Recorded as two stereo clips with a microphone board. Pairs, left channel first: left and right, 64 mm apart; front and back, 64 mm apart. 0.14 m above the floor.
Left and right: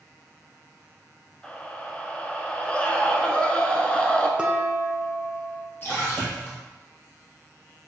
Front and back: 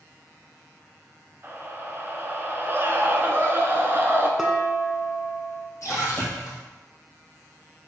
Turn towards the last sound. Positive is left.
turn(degrees=35)